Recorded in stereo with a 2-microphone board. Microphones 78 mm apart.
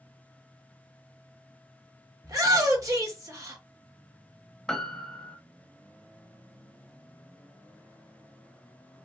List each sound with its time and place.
2.2 s a shout: 50° right (ahead or behind), 1.6 m
4.7 s a piano: 5° left (ahead or behind), 0.6 m